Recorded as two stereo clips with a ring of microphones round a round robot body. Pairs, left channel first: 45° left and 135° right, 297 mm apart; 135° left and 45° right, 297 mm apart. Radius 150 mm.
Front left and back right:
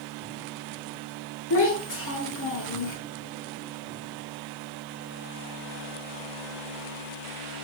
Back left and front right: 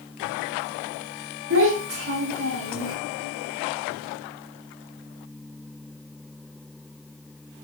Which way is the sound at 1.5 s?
Straight ahead.